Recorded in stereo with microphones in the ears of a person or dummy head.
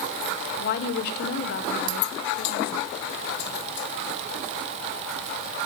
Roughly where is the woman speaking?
Left.